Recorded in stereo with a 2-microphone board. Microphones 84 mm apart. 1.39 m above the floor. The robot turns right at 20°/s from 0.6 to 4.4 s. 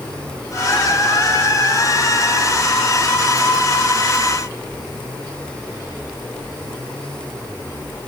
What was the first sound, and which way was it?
Only background noise.